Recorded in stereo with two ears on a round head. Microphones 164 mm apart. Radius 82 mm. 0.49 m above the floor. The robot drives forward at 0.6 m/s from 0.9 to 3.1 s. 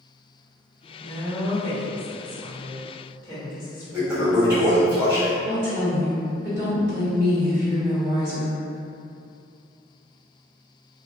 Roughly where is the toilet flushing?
Centre.